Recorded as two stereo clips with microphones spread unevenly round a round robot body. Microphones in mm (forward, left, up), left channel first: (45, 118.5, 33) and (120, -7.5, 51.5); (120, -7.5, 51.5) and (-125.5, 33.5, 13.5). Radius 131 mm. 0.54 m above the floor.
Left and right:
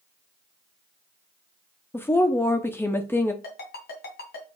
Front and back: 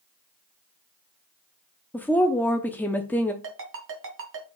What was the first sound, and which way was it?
A woman speaking, 85° left.